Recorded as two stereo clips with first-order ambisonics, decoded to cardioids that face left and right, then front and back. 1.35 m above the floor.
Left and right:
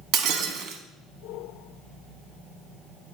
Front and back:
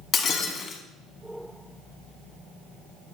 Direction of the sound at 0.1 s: 65° right.